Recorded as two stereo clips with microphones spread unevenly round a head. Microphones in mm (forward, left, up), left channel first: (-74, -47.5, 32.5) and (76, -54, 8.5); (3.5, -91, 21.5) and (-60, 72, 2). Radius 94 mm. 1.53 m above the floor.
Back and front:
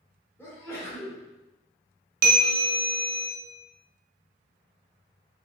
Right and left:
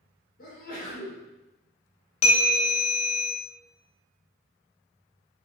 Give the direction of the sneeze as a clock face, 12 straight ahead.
4 o'clock.